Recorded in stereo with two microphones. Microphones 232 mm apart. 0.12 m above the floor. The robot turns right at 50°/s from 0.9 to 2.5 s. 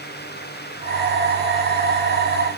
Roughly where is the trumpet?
I don't hear a trumpet.